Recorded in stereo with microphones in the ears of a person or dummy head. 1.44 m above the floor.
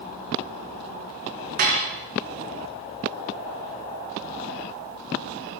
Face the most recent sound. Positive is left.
turn(degrees=-50)  # may be behind; listen again after turning